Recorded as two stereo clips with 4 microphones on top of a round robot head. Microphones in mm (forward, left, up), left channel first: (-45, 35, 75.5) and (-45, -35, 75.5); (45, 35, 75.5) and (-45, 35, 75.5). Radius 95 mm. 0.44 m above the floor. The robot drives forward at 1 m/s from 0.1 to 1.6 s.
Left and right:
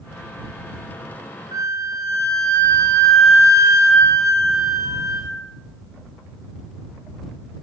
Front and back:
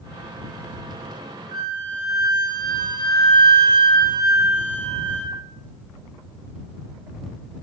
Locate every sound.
1.5 s a flute: 130° right, 1.3 m